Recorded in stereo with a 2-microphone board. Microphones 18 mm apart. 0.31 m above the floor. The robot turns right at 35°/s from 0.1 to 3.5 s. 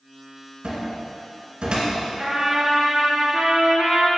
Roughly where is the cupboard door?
Right.